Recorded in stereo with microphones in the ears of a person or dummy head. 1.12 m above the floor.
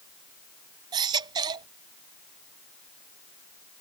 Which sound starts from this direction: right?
A baby crying, at 0.9 s.